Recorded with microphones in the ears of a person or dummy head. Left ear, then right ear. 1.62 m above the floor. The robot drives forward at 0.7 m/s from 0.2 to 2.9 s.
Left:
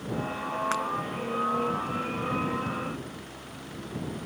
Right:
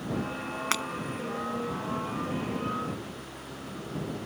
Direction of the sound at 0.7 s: 25° right (ahead or behind).